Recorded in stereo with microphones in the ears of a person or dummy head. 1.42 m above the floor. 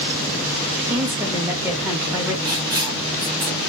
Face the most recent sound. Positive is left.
turn(degrees=-20)  # may be behind; listen again after turning